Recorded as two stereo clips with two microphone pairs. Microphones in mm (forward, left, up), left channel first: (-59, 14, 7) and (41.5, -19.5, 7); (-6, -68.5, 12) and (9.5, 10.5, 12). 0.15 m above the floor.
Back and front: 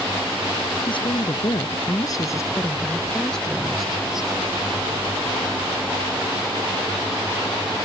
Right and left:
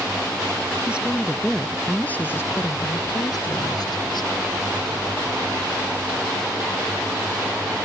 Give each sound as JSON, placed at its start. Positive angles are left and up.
{"t": 0.9, "sound": "a woman speaking", "azimuth_deg": 155}